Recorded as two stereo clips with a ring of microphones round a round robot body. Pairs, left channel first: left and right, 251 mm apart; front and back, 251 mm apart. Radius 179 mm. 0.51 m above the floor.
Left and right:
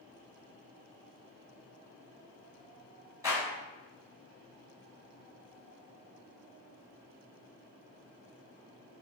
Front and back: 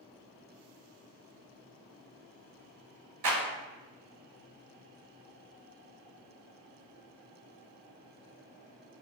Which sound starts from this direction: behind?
A clap, at 3.2 s.